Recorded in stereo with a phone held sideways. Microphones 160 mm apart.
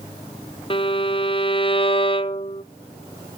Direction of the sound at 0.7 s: 35° left (ahead or behind).